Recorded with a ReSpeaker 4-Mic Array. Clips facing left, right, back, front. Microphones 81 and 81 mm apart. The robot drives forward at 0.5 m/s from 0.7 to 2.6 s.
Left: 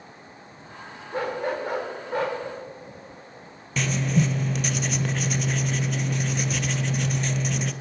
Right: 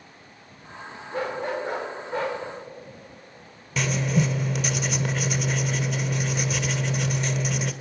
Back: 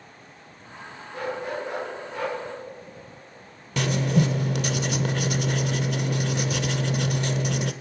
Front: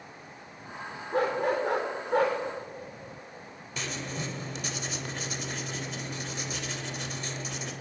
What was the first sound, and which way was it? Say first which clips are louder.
A dog barking: left 1 dB, front 4 dB; 40° left.